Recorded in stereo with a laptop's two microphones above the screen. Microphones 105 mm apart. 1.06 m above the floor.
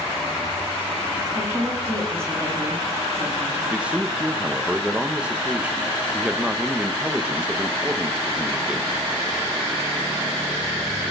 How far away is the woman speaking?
About 2 m.